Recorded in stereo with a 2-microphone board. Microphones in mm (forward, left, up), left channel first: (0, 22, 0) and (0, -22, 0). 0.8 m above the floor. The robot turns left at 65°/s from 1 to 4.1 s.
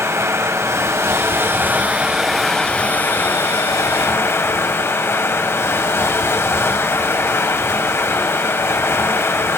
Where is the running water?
90° right, 1.6 m; by 9.6 s 70° left, 1.6 m.